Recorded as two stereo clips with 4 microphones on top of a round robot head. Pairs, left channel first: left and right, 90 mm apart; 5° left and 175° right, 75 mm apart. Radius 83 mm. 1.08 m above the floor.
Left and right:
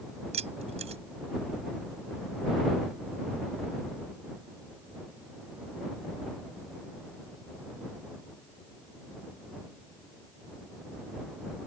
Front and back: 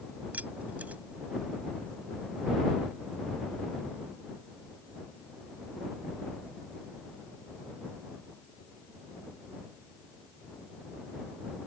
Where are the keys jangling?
100° right.